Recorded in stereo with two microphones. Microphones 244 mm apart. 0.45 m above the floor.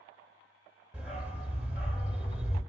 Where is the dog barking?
5° right (ahead or behind), 0.7 m.